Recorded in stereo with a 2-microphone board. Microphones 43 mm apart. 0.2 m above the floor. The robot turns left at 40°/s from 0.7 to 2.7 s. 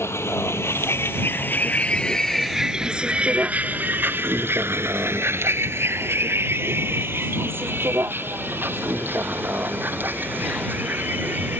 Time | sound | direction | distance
0.0 | a vehicle | 80° left | ?